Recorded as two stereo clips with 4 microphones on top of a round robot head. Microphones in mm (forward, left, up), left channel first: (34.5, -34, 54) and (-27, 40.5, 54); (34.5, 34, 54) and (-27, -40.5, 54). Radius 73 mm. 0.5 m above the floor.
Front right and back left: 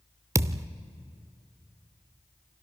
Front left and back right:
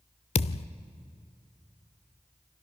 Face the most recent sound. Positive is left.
turn(degrees=70)